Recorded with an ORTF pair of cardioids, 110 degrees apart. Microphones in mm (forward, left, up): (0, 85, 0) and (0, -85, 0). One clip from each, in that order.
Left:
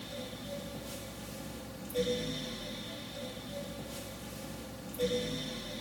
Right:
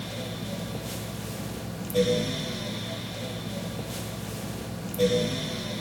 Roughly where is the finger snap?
No finger snap in this recording.